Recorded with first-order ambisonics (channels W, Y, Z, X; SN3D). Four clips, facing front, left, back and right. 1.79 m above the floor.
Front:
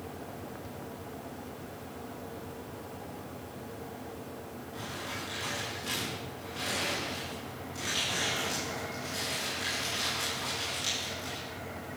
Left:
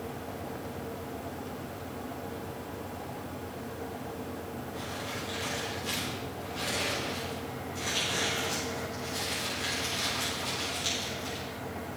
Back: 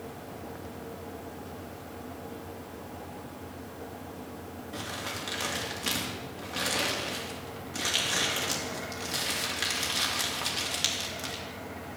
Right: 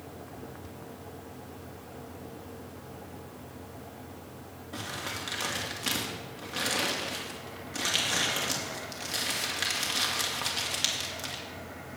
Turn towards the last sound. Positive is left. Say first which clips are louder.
# right 4 dB, back 3 dB
turn(degrees=-130)